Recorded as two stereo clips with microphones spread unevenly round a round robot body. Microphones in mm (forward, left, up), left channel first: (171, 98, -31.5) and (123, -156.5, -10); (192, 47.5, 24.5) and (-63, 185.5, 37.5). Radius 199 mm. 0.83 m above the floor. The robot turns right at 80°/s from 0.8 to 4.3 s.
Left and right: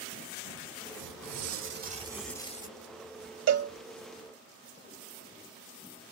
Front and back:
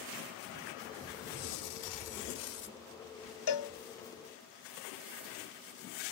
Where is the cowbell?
70° right, 1.0 m; by 3.7 s 55° right, 1.0 m.